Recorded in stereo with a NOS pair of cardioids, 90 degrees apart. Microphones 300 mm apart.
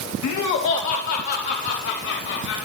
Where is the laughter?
70° left, 1.1 m; by 2.5 s 65° left, 4 m.